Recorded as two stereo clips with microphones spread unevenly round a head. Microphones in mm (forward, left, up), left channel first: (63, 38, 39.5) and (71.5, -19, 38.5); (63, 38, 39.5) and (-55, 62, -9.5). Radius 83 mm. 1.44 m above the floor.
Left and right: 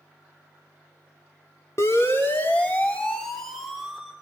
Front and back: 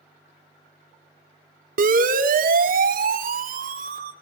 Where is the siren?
165° left, 3 m; by 4.1 s 165° right, 3.5 m.